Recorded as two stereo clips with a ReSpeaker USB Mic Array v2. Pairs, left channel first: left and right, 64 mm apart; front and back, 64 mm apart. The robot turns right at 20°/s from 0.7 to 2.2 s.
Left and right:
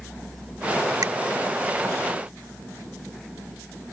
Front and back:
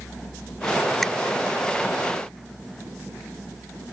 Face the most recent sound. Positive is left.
turn(degrees=-65)